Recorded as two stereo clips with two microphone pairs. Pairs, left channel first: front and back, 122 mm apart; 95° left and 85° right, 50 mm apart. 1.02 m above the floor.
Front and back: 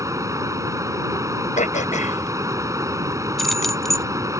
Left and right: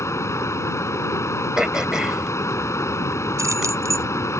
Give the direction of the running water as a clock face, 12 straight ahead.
8 o'clock.